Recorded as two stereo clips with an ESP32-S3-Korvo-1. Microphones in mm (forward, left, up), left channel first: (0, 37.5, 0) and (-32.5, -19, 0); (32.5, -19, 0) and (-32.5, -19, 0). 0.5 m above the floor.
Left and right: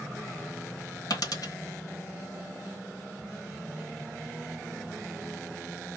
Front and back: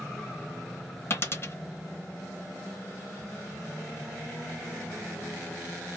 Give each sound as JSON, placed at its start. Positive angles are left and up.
{"t": 1.1, "sound": "a dropped coin", "azimuth_deg": 50, "distance_m": 1.0}